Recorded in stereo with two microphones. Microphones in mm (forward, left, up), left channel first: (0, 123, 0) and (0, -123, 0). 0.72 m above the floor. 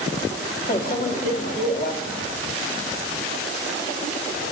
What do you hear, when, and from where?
0.7 s a microwave: 35° left (ahead or behind), 1.2 m